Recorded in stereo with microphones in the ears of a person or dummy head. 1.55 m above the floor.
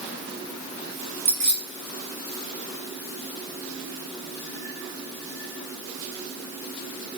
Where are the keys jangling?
35° right (ahead or behind), 1.2 m.